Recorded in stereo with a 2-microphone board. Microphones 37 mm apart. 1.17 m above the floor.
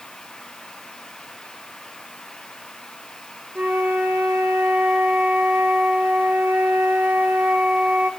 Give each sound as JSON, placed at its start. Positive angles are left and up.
{"t": 3.5, "sound": "a flute", "side_deg": -50, "distance_m": 1.4}